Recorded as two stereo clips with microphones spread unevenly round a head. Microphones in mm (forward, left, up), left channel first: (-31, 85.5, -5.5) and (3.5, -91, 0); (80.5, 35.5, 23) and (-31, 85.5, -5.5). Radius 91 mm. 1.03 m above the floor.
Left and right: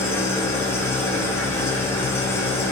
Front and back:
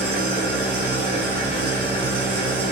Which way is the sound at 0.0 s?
Straight behind.